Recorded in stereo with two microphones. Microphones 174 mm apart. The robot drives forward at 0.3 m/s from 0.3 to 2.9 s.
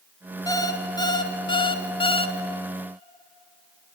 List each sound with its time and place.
0.5 s an alarm clock: 20° left (ahead or behind), 1.1 m; by 2.4 s 35° left (ahead or behind), 0.7 m